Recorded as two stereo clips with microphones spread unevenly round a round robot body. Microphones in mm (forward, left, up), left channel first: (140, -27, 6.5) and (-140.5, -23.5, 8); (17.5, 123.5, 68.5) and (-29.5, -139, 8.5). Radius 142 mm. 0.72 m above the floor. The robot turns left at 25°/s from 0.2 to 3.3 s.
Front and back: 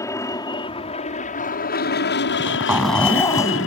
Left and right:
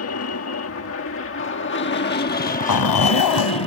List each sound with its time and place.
0.0 s an aircraft: 75° left; by 3.7 s 10° left
2.3 s a zipper: 105° left; by 3.7 s 80° left